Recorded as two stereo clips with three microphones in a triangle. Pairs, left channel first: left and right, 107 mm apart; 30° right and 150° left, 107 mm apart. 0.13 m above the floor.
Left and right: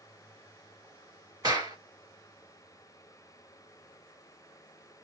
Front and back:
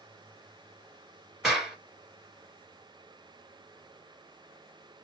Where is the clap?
125° right, 1.5 m.